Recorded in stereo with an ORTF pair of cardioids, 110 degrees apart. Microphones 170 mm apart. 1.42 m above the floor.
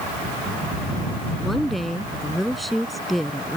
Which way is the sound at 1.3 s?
Straight ahead.